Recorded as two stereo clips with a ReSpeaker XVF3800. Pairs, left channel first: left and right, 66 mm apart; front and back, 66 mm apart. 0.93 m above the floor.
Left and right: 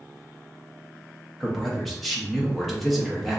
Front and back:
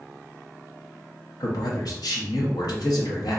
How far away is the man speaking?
About 1.0 m.